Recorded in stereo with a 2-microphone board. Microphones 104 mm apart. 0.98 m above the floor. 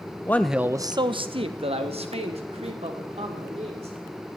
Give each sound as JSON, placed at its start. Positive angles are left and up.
{"t": 0.3, "sound": "a man speaking", "side_deg": 25, "distance_m": 0.7}